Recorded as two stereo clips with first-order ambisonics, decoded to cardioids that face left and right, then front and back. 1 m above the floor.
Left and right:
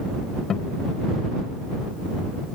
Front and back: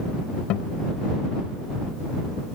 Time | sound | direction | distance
0.5 | a guitar | 30° left | ?